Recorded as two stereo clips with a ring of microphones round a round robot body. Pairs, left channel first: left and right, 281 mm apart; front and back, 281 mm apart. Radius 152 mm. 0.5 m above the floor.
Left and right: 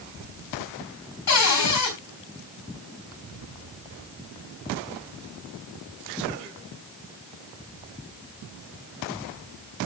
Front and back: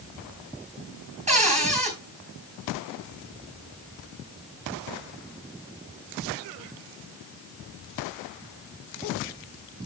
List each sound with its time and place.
1.3 s a cupboard door: 115° left, 3.5 m